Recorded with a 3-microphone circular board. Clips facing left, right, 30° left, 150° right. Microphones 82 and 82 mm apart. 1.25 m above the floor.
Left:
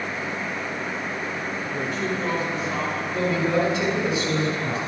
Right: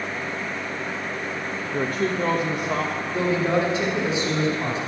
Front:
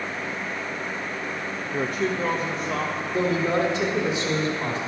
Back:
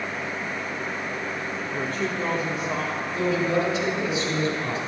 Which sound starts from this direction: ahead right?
A woman speaking, at 1.7 s.